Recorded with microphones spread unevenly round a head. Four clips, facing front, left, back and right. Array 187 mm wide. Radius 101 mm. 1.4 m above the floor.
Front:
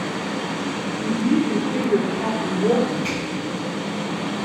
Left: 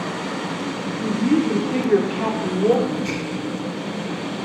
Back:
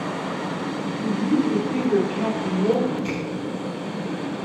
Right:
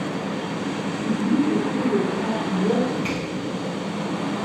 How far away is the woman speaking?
About 4.5 m.